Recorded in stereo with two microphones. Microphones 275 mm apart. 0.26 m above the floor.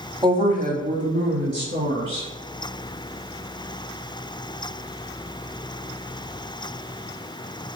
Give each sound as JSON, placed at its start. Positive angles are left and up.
{"t": 0.2, "sound": "a woman speaking", "side_deg": -15, "distance_m": 0.9}